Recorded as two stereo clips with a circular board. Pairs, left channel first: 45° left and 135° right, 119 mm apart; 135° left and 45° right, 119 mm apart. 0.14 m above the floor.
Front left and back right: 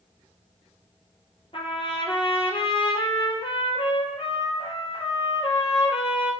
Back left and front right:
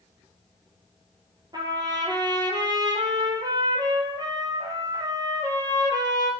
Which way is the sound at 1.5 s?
10° left.